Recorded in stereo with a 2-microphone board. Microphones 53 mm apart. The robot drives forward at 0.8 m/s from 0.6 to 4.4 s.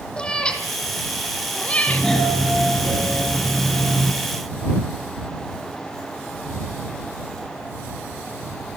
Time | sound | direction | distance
0.2 | a cat meowing | 20° left (ahead or behind) | 3 m
1.9 | a doorbell | 10° left (ahead or behind) | 4.5 m